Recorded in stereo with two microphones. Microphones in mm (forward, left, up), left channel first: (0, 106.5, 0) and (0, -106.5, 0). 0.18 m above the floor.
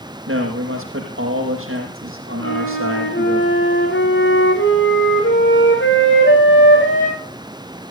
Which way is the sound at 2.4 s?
60° left (ahead or behind).